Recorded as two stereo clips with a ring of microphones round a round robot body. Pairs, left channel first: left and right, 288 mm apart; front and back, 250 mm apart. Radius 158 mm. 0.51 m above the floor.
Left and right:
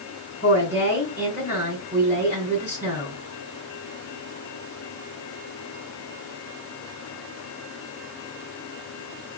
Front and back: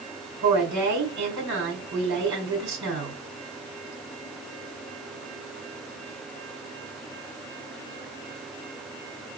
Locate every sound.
0.4 s a woman speaking: 170° right, 3.5 m